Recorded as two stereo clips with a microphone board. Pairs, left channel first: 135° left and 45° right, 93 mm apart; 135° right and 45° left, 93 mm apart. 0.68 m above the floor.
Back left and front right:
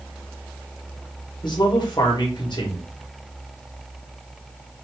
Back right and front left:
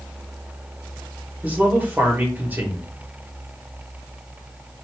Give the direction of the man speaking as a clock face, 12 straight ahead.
8 o'clock.